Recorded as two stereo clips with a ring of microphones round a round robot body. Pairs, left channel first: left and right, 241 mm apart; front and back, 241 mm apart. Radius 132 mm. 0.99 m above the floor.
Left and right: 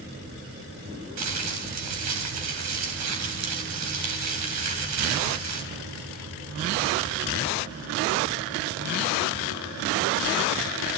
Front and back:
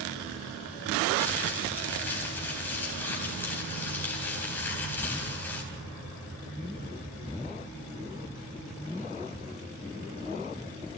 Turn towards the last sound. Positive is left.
turn(degrees=-85)